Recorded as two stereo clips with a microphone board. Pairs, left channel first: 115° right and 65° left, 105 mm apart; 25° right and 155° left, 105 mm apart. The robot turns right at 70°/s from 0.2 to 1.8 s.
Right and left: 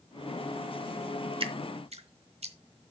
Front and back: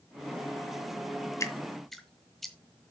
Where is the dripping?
35° left, 1.2 m; by 2.5 s 65° left, 1.2 m.